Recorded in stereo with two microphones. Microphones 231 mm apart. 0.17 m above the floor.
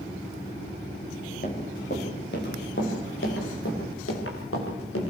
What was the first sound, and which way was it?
Running footsteps, 40° left (ahead or behind).